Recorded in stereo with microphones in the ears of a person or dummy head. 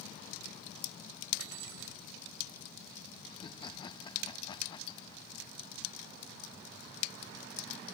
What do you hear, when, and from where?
1.4 s cutlery clinking: 80° right
3.3 s laughter: 30° left (ahead or behind)